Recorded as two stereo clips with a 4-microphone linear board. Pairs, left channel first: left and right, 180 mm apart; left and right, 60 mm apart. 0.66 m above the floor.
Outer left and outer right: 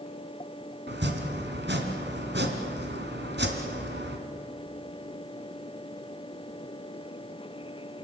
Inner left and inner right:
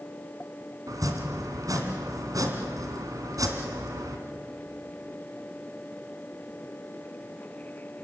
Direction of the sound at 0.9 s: 80° right.